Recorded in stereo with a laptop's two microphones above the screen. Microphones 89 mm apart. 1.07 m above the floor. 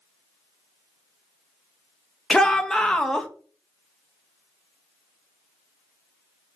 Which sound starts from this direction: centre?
A shout, at 2.3 s.